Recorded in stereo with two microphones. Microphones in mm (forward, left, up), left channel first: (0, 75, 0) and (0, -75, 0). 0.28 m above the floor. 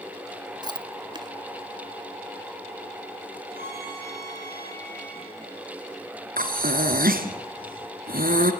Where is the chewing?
30° right (ahead or behind), 0.9 m.